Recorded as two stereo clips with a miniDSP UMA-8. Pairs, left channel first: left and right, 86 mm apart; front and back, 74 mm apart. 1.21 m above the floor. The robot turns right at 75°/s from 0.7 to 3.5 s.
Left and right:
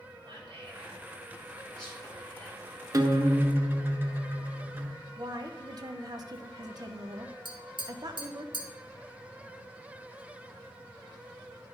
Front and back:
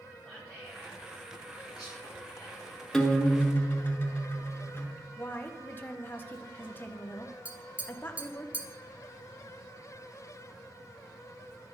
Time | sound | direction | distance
0.2 | whispering | 75° right | 1.7 m
2.9 | a guitar | 85° right | 0.9 m
5.2 | a woman speaking | 60° right | 0.8 m
7.5 | tapping | 110° right | 1.0 m